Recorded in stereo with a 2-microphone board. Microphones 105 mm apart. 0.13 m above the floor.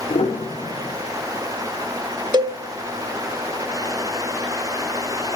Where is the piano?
80° left, 4 m.